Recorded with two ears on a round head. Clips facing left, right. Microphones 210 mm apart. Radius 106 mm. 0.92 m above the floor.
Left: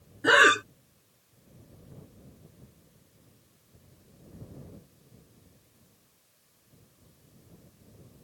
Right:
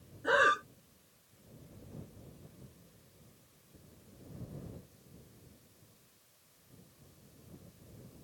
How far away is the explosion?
No explosion in this recording.